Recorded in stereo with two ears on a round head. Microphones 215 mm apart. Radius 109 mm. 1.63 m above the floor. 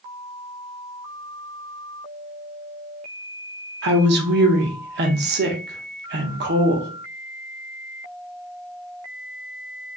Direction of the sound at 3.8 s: 45° right (ahead or behind).